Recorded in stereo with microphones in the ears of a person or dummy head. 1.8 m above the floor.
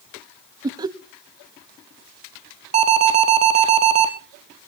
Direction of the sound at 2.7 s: 35° right (ahead or behind).